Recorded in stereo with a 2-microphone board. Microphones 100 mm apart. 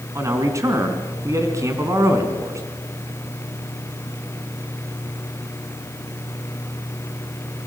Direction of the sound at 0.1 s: 30° right (ahead or behind).